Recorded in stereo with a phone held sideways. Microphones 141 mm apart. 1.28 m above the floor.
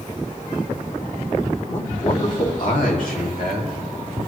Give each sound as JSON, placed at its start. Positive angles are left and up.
{"t": 1.7, "sound": "a man speaking", "side_deg": 50, "distance_m": 2.5}